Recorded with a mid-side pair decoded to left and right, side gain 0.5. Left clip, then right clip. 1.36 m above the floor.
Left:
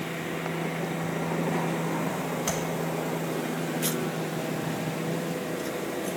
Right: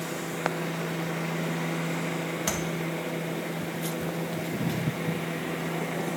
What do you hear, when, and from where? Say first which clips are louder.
2.5 s tapping: even; 20° right, 1.4 m